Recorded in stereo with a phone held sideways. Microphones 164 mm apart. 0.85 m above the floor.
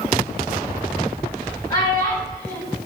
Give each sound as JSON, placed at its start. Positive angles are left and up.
{"t": 1.7, "sound": "a child speaking", "side_deg": 25, "distance_m": 4.5}